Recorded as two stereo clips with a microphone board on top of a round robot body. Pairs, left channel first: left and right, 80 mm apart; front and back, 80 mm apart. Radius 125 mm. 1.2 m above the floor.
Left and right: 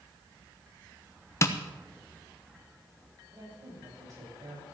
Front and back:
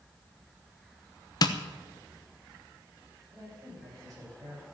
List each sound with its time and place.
1.4 s tapping: 35° left, 1.2 m
3.3 s a woman speaking: 135° right, 8 m